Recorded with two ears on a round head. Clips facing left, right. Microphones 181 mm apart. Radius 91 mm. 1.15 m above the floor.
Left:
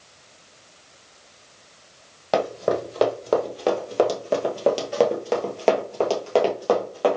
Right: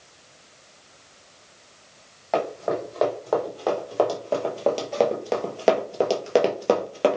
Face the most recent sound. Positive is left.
turn(degrees=-35)  # may be behind; listen again after turning